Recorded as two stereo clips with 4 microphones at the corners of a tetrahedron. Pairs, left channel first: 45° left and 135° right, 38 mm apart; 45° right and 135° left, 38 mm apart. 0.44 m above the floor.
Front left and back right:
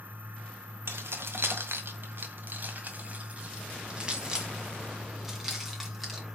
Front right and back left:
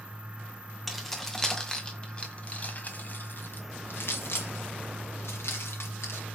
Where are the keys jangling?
135° right, 1.8 m; by 6.2 s 45° right, 3 m.